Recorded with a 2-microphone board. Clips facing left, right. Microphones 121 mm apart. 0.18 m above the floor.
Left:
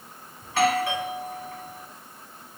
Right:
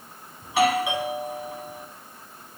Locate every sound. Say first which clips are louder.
0.4 s a doorbell: right 1 dB; 15° right (ahead or behind), 2.0 m